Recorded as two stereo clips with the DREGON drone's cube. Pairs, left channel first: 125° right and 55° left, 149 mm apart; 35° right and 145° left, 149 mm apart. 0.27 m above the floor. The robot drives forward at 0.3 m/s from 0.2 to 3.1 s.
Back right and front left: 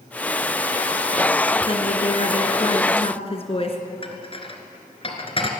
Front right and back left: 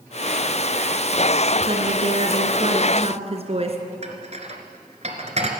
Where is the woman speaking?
170° right, 2 m.